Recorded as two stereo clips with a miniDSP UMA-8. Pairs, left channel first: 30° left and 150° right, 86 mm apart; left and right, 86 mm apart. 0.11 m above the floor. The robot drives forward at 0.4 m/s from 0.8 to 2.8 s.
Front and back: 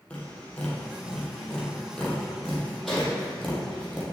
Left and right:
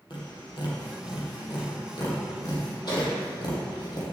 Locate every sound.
0.1 s tapping: 105° left, 3 m; by 4.0 s 115° left, 3.5 m